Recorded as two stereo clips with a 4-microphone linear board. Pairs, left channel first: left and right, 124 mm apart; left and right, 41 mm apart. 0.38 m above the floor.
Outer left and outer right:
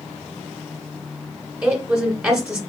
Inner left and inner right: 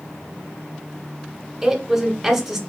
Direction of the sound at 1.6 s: 5° right (ahead or behind).